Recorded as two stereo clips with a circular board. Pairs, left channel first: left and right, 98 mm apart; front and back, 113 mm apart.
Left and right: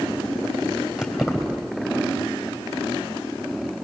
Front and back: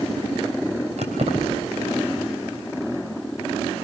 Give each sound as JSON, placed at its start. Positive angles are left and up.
{"t": 1.0, "sound": "keys jangling", "azimuth_deg": -175, "distance_m": 3.5}